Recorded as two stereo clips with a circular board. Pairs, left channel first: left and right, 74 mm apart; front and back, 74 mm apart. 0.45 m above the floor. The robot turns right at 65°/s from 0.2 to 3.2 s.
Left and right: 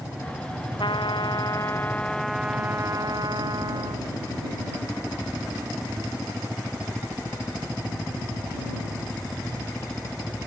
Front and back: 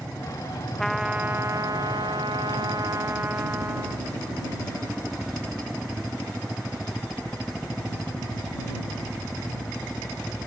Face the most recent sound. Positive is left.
turn(degrees=-120)